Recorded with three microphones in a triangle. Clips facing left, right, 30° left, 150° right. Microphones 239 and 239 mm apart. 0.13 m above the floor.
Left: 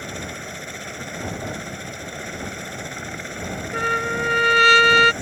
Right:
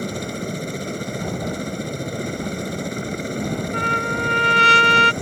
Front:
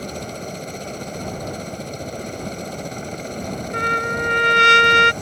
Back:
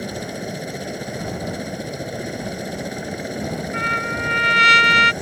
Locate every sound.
0.0 s a helicopter: 75° right
3.7 s a trumpet: 25° left